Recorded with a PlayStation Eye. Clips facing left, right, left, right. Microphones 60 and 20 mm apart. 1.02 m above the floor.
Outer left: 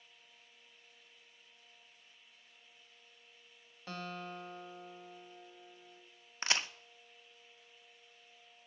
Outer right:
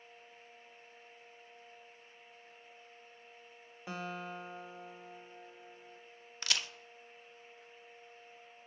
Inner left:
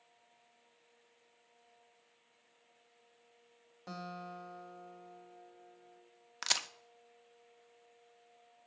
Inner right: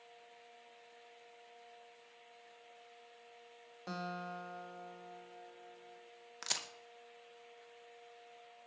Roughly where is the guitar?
Centre.